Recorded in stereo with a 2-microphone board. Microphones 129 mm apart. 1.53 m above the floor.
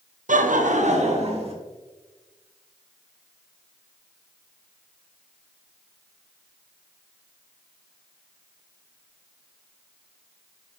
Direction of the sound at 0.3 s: 80° right.